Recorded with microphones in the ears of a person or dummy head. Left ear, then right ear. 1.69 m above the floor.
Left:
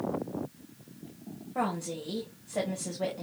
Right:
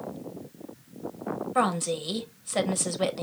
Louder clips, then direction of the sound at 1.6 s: Right 6 dB; 55° right (ahead or behind).